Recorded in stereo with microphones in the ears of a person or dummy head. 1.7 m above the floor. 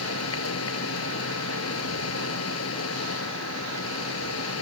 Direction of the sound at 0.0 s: 85° left.